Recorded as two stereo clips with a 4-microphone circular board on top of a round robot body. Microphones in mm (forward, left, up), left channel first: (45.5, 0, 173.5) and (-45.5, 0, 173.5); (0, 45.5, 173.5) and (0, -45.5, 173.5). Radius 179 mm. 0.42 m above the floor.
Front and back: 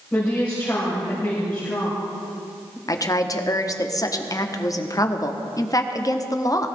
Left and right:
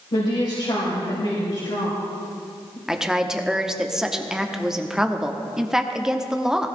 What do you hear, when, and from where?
0.1 s a woman speaking: 70° left, 3.5 m
2.9 s a woman speaking: 10° right, 1.5 m